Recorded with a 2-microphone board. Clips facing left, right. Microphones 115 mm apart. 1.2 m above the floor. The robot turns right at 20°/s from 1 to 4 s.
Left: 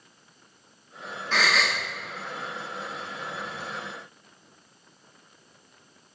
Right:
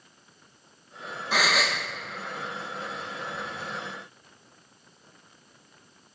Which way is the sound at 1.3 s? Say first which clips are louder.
Even; 10° right (ahead or behind).